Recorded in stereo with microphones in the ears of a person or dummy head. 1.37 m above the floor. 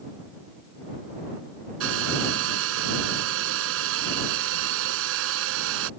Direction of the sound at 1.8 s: 70° right (ahead or behind).